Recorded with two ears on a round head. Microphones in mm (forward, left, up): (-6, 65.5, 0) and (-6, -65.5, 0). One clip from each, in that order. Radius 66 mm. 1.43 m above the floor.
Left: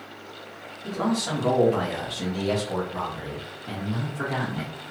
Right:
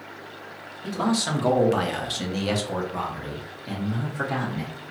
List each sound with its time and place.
0.8 s a man speaking: 55° right (ahead or behind), 1.0 m; by 4.7 s 15° right (ahead or behind), 1.5 m